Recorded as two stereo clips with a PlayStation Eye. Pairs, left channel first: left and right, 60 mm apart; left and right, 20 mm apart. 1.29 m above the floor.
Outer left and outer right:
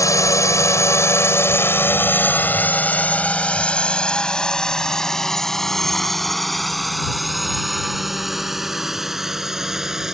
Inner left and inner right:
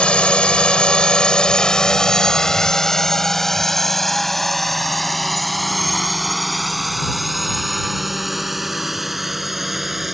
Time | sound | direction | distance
0.0 | a drone | 70° left (ahead or behind) | ?